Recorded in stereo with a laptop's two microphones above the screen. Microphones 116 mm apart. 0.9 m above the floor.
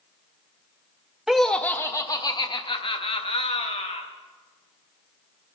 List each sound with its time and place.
1.3 s laughter: 5° right (ahead or behind), 0.6 m; by 4.0 s 60° left (ahead or behind), 1.7 m